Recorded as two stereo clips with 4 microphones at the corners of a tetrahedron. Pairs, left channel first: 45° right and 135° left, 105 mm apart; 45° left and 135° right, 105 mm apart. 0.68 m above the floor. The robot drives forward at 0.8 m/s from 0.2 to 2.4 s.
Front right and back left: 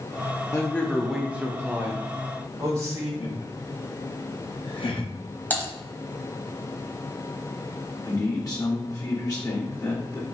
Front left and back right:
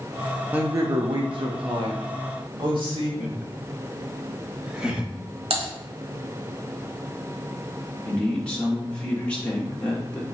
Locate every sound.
0.5 s a man speaking: 75° right, 0.5 m; by 3.1 s 165° right, 1.5 m
3.2 s laughter: 55° right, 1.0 m
5.5 s typing on a keyboard: 115° right, 1.3 m
8.1 s a man speaking: 30° right, 1.2 m